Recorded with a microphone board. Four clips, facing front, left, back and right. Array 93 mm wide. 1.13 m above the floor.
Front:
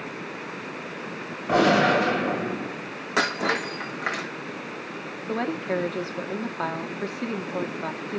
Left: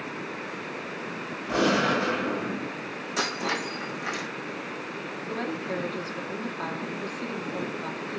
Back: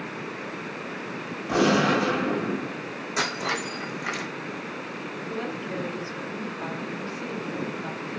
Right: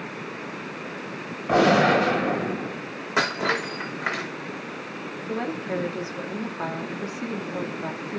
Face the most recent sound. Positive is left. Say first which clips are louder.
# right 3 dB, front 7 dB
turn(degrees=-15)